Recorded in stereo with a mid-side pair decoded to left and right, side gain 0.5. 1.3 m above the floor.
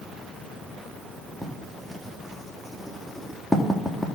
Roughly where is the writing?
Ahead.